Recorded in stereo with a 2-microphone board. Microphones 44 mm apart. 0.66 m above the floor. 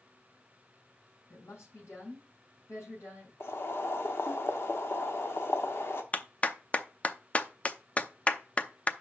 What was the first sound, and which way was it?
A woman speaking, 80° left.